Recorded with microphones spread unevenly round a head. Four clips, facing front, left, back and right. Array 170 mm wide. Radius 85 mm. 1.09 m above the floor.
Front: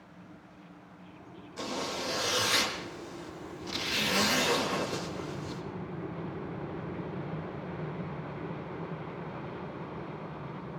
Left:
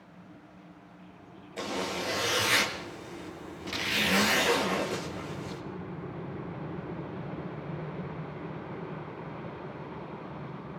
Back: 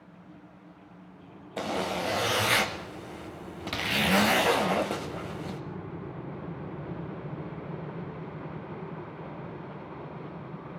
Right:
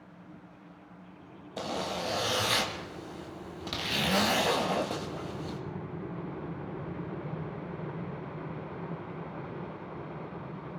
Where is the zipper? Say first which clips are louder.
Even, back 5 dB; 165° right, 1.7 m.